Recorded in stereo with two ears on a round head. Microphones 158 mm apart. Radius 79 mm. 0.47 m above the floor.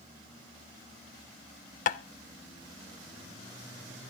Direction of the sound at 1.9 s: 50° left (ahead or behind).